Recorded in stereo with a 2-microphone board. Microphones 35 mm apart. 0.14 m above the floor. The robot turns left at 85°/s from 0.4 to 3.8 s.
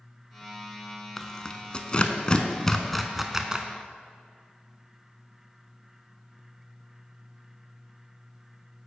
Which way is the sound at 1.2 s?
10° left (ahead or behind).